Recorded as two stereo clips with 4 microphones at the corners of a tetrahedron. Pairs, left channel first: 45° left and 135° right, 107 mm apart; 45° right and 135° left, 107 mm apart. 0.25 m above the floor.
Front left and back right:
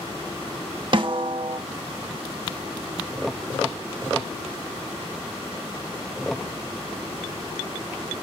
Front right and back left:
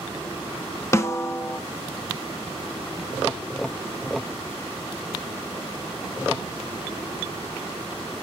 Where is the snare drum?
105° right, 0.7 m.